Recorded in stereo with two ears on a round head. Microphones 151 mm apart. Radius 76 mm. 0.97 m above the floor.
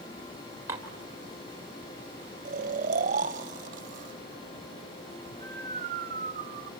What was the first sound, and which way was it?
Dishes clattering, 15° right (ahead or behind).